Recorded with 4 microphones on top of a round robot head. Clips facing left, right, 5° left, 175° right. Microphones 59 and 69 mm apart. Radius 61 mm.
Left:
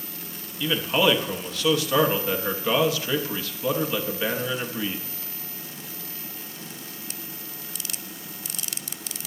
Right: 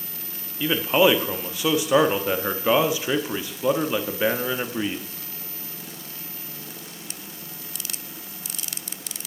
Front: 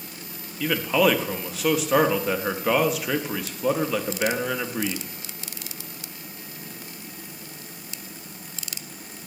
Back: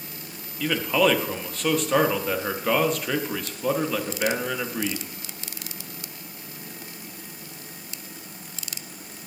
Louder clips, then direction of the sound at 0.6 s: Right 3 dB, front 1 dB; 70° right.